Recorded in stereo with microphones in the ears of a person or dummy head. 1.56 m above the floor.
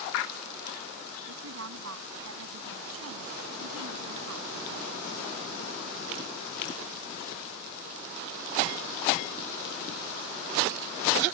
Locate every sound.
1.3 s a woman speaking: 80° right; by 4.6 s 85° right